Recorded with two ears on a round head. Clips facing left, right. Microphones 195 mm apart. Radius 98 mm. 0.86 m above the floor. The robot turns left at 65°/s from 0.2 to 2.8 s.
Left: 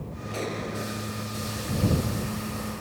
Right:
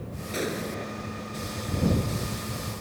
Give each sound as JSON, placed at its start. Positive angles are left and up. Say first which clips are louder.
{"t": 0.3, "sound": "an explosion", "louder": "right 1 dB", "azimuth_deg": -155}